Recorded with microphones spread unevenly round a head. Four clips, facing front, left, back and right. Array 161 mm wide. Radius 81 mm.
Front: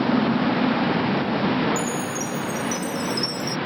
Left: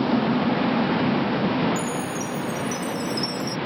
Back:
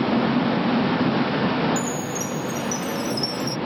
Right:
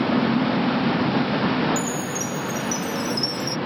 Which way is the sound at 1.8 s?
40° right.